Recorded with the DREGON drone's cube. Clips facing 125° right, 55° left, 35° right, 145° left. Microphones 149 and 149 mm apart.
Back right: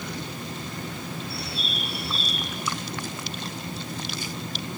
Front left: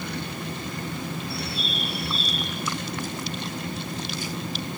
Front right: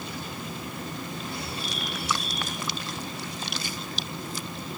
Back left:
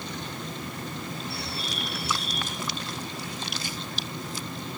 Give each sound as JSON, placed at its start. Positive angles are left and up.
{"t": 1.3, "sound": "a bird", "azimuth_deg": 150, "distance_m": 3.5}